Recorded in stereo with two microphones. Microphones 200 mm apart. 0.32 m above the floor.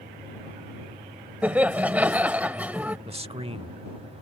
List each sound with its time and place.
1.4 s laughter: 10° right (ahead or behind)
3.1 s a man speaking: 30° right (ahead or behind)